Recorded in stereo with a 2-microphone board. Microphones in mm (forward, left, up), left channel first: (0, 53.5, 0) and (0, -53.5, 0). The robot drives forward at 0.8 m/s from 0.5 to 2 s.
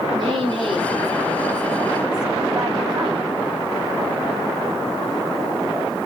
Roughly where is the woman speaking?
Right.